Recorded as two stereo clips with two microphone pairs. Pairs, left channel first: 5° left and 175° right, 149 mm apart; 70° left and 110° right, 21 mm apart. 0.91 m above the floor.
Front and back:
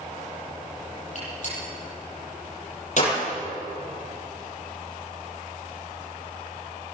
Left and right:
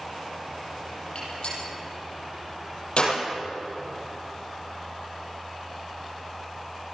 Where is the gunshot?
40° left, 9 m.